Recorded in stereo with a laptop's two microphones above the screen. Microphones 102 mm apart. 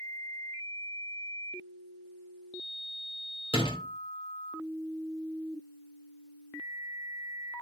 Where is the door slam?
60° left (ahead or behind), 3.5 m.